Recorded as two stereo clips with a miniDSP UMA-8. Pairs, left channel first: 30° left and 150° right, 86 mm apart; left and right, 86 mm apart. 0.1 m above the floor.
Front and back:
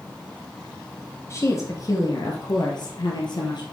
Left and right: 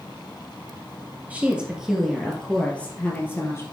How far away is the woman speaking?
About 2.5 m.